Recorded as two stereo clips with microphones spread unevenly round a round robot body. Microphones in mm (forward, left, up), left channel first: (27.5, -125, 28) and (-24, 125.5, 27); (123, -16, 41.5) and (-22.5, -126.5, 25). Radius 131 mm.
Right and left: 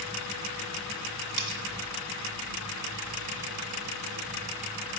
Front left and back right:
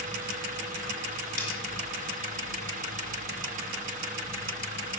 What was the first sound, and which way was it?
Cutlery clinking, 90° left.